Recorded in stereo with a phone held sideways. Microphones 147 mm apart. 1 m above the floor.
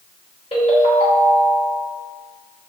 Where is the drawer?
No drawer in this recording.